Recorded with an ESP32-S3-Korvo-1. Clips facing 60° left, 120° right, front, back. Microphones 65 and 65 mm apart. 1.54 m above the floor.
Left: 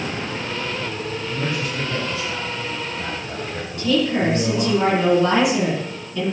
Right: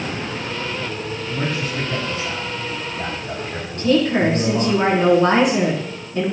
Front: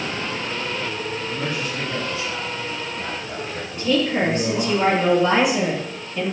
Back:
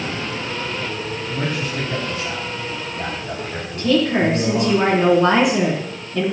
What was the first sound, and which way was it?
A man speaking, 155° right.